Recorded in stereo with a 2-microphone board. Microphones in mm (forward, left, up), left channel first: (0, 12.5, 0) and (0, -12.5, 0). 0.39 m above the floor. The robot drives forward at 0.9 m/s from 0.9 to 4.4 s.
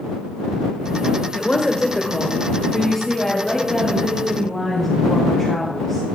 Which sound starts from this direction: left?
A woman speaking, at 1.3 s.